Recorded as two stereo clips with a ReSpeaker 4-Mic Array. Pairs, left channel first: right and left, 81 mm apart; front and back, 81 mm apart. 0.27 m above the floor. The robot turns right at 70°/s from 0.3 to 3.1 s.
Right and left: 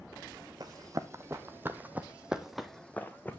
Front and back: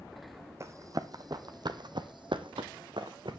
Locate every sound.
0.6 s running footsteps: 125° left, 0.9 m; by 3.4 s 160° right, 1.3 m